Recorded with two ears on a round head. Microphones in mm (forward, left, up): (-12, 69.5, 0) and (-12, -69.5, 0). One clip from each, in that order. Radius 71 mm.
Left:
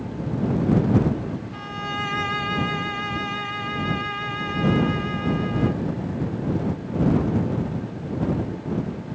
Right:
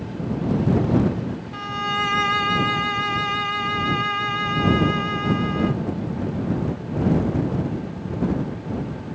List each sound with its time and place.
1.5 s a violin: 30° right (ahead or behind)